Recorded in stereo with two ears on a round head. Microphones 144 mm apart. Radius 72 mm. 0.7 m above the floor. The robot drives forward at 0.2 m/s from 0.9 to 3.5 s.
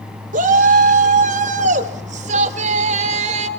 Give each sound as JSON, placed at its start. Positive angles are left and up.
{"t": 0.3, "sound": "a shout", "side_deg": -55, "distance_m": 2.0}